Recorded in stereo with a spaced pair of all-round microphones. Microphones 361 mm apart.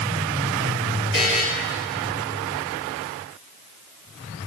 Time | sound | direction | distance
1.1 | a buzzer | 65° right (ahead or behind) | 4.5 m